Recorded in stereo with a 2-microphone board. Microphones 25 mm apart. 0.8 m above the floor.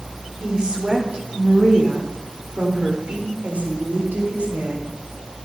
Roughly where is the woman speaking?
Right.